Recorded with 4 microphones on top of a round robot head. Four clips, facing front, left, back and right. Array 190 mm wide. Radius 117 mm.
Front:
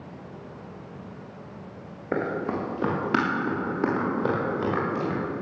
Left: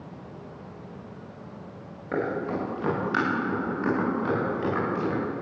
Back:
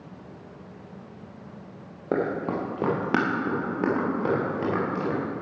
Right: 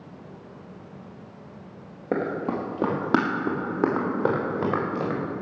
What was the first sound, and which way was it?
Running footsteps, 135° right.